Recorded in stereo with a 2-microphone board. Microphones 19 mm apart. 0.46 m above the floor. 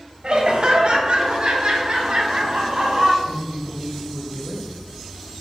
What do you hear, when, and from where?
0.2 s laughter: 55° right (ahead or behind), 2 m; by 3.1 s 65° right (ahead or behind), 3.5 m
3.2 s a woman speaking: 25° right (ahead or behind), 2 m